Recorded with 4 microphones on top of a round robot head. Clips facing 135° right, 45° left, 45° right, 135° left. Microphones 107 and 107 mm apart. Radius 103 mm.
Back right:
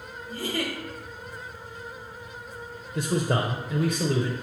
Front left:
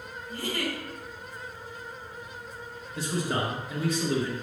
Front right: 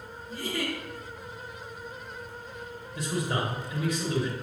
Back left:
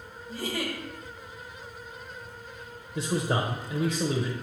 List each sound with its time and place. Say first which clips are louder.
0.3 s a giggle: back right 2 dB, even; 175° right, 1.0 m
3.0 s a man speaking: back right 4 dB, back left 3 dB; 165° right, 0.8 m